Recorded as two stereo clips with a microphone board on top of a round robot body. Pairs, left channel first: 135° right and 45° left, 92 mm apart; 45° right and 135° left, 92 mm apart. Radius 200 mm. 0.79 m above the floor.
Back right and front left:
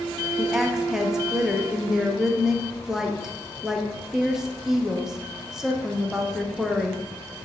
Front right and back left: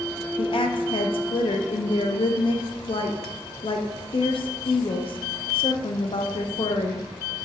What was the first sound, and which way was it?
A woman speaking, 40° right.